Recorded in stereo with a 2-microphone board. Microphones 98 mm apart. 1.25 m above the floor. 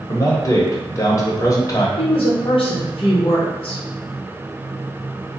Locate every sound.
0.1 s a man speaking: 35° left (ahead or behind), 0.9 m
2.0 s a woman speaking: 50° left (ahead or behind), 0.9 m